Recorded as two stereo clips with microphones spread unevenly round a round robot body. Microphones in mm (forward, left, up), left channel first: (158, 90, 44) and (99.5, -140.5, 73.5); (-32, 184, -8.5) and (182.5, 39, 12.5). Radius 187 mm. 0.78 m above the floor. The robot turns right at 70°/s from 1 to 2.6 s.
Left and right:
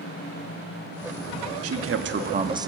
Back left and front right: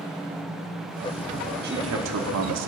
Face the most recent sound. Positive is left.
turn(degrees=-30)